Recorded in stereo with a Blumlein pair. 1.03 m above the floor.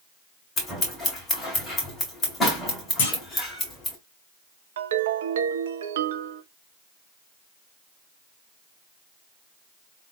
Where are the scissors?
20° left, 2.5 m.